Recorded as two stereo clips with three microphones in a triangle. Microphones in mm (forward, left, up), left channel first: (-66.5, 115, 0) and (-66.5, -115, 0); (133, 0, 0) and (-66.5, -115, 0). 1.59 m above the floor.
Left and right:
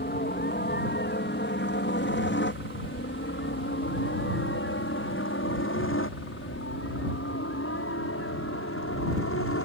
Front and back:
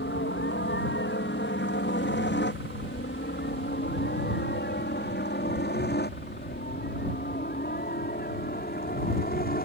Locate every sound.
0.0 s a helicopter: 55° left; by 9.6 s 75° left